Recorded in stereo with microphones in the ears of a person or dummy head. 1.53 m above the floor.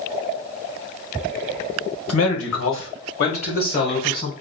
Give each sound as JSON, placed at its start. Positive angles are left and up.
{"t": 2.1, "sound": "a man speaking", "side_deg": 75, "distance_m": 1.3}